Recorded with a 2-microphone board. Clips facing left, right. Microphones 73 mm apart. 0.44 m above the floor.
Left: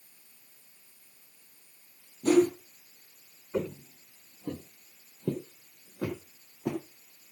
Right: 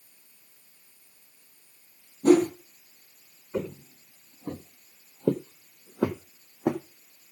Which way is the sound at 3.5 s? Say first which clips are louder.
Even; 5° left (ahead or behind).